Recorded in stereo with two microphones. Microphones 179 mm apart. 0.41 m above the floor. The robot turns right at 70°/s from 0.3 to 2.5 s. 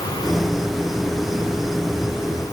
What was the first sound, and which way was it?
Only background noise.